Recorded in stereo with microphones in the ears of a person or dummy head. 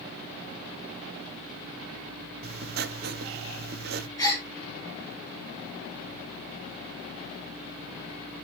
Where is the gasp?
10° left (ahead or behind), 7.5 m.